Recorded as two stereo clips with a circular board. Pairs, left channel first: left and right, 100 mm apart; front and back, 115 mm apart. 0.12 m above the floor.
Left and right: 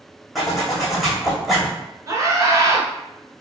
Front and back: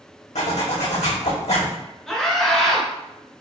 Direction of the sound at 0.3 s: Straight ahead.